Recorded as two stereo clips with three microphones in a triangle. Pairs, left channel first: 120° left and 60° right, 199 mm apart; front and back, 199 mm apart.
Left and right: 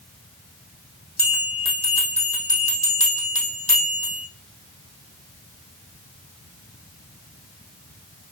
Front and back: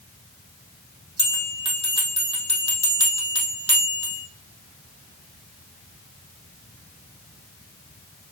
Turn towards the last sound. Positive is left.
turn(degrees=165)